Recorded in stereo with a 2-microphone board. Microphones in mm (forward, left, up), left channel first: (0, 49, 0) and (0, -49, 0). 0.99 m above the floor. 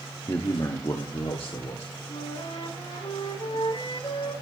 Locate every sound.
0.3 s a man speaking: 35° left (ahead or behind), 1.2 m; by 1.9 s 75° left (ahead or behind), 2 m
2.1 s a flute: 65° left (ahead or behind), 10 m